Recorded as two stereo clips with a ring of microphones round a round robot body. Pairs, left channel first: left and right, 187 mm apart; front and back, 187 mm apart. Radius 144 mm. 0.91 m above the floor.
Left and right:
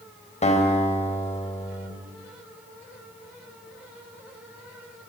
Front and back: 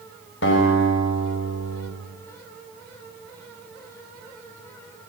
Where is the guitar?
35° left, 5.5 m.